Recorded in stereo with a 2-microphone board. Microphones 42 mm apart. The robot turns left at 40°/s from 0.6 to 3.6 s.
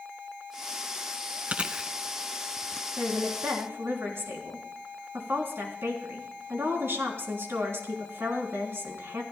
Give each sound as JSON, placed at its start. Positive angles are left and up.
{"t": 1.5, "sound": "chewing", "side_deg": -35, "distance_m": 0.7}
{"t": 3.0, "sound": "a woman speaking", "side_deg": -45, "distance_m": 3.5}